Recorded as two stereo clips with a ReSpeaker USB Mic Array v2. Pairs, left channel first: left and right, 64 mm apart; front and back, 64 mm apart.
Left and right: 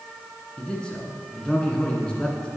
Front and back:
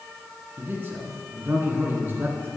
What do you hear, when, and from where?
0.6 s a man speaking: 155° left, 1.8 m